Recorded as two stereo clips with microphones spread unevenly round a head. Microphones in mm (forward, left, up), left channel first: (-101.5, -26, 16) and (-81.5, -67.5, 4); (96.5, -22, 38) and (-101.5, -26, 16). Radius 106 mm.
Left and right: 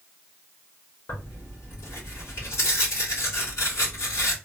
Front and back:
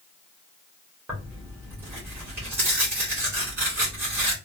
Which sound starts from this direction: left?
Tearing paper, at 1.1 s.